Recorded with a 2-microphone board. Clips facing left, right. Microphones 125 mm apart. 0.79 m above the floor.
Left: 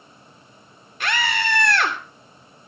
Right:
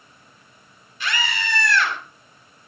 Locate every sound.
1.0 s a scream: 60° left (ahead or behind), 2.5 m